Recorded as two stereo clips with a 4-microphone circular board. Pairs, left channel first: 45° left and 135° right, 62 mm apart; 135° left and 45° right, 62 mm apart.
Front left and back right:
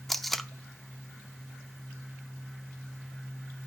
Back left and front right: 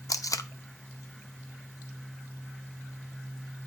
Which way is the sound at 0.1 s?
130° left.